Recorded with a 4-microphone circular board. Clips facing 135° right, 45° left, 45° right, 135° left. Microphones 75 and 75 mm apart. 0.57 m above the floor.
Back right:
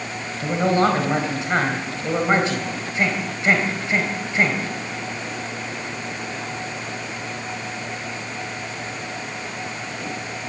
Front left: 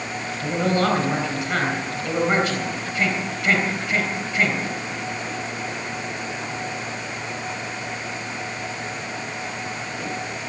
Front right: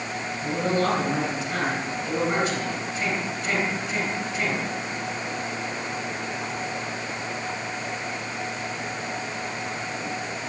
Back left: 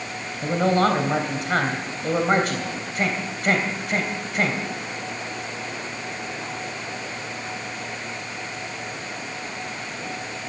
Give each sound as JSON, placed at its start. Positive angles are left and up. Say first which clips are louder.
{"t": 0.4, "sound": "a man speaking", "louder": "back right 3 dB, back left 5 dB", "azimuth_deg": 160, "distance_m": 3.0}